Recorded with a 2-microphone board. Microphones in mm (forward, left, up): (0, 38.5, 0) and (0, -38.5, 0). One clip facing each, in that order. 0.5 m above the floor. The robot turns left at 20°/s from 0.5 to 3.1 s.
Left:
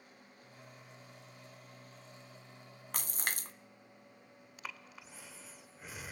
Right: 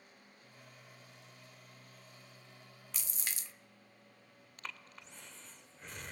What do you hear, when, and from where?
2.9 s a splash: 50° left (ahead or behind), 0.6 m
4.6 s breathing: 5° left (ahead or behind), 0.8 m